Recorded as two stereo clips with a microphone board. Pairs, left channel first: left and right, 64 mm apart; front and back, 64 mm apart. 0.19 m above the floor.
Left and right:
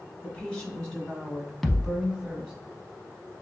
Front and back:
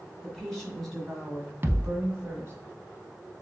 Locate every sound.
0.2 s a woman speaking: 50° left, 1.5 m; by 2.5 s 170° right, 1.6 m
1.6 s a thud: 170° left, 0.6 m